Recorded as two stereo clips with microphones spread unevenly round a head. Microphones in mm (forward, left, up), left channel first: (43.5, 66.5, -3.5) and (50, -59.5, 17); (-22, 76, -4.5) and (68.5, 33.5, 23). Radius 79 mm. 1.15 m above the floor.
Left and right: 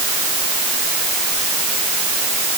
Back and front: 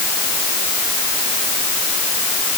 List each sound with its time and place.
Only background noise.